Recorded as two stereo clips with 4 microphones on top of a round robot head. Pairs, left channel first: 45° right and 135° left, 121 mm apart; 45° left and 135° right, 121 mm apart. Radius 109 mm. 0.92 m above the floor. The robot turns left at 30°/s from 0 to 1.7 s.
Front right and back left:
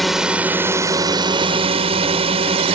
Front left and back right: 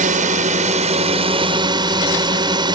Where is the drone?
135° right; by 2.8 s 175° left.